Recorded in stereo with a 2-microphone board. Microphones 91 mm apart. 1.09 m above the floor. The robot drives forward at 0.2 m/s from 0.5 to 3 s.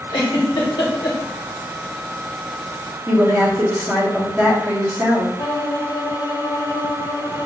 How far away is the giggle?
About 1.2 m.